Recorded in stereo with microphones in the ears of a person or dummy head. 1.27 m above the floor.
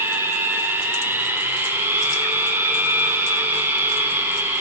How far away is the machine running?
About 1.3 m.